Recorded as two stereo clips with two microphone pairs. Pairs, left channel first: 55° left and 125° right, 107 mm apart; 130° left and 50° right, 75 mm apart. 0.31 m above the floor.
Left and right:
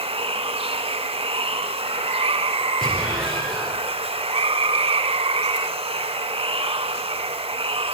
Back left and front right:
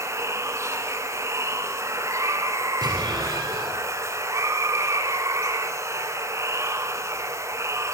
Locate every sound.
0.0 s running water: 95° right, 0.8 m
2.8 s an explosion: 30° right, 3.5 m